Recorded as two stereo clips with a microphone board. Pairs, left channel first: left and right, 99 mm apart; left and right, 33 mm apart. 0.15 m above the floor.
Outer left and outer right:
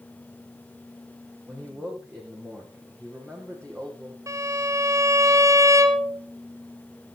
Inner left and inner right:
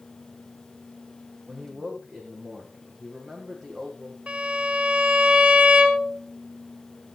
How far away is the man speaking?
About 8 m.